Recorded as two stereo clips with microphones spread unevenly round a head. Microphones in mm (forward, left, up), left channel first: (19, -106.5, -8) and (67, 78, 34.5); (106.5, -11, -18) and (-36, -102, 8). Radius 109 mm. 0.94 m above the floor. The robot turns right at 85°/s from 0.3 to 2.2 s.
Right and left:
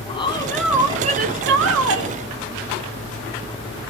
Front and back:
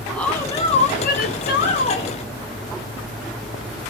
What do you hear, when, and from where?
0.1 s a woman speaking: 45° right, 0.8 m; by 2.2 s 115° left, 0.8 m